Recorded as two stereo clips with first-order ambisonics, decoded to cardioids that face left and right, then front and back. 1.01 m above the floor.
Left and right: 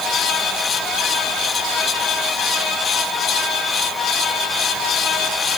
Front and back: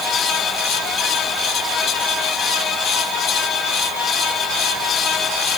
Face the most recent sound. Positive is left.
No sound to turn to.